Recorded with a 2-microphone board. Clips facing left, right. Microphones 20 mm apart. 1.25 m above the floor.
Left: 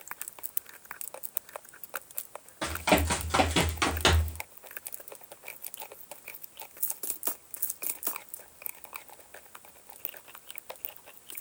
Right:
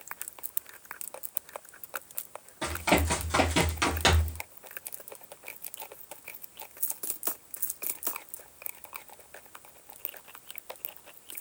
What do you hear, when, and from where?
2.6 s running footsteps: 10° left (ahead or behind), 3 m; by 4.4 s 5° right (ahead or behind), 1.4 m